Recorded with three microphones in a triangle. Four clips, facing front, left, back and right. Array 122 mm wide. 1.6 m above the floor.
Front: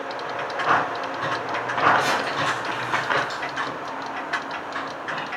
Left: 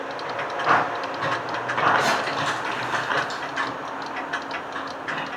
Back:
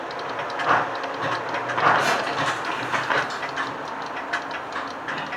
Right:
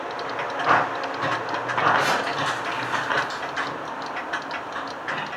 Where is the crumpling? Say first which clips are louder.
Even, back 1 dB; 90° left, 1.0 m.